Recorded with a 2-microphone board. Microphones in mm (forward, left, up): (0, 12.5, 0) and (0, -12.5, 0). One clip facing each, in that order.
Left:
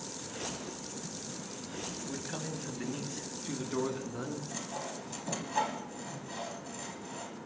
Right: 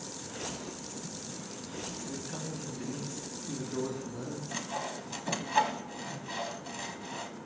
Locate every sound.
2.0 s a man speaking: 10° left (ahead or behind), 1.9 m; by 4.4 s 45° left (ahead or behind), 3.5 m
4.5 s sawing: 45° right (ahead or behind), 1.4 m